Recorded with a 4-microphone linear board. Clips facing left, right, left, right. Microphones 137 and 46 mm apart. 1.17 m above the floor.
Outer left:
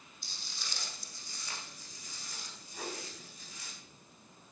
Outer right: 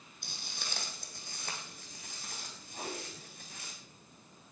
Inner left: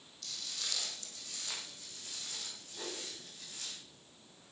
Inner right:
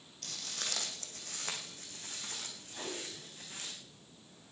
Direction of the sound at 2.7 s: 30° right (ahead or behind).